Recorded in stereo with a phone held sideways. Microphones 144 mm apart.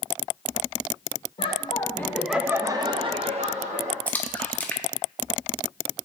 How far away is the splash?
About 0.6 m.